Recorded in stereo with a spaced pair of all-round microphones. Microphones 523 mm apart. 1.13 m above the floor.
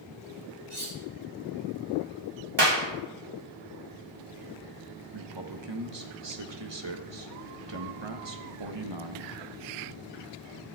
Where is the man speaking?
50° right (ahead or behind), 1.0 m.